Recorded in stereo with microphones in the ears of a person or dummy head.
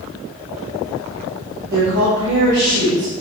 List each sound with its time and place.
1.7 s a woman speaking: 80° right, 2.5 m